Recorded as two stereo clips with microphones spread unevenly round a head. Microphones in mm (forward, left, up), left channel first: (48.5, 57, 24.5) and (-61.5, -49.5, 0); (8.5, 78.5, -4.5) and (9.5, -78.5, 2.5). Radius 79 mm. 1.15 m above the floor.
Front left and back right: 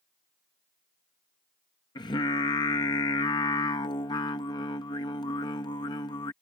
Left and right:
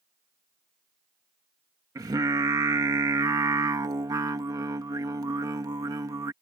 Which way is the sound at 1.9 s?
20° right.